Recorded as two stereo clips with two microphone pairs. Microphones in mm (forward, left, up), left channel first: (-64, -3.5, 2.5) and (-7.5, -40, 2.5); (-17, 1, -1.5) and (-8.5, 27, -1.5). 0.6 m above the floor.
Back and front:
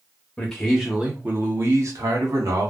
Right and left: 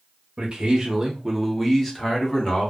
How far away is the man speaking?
About 0.8 m.